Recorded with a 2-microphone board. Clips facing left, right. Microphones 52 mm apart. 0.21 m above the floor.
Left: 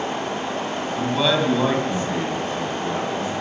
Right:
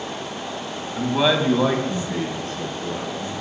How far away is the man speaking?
About 1.8 m.